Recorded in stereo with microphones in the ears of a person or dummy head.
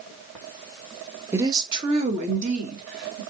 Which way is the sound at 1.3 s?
15° right (ahead or behind).